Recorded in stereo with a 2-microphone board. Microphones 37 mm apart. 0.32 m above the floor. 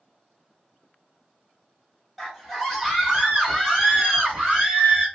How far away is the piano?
I don't hear a piano.